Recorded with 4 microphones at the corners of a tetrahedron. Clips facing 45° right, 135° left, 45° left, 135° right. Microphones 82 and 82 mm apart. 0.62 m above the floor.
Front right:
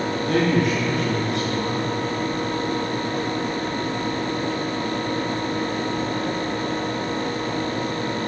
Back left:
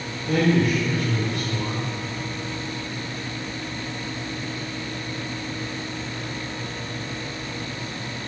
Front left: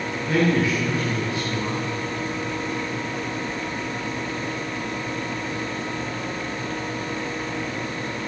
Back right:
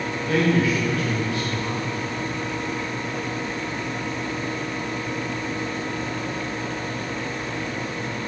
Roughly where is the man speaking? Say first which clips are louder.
Back left 1 dB, even; ahead right.